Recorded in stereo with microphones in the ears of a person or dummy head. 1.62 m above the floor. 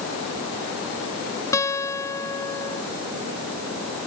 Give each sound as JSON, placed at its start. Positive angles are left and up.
{"t": 1.5, "sound": "a guitar", "side_deg": 15}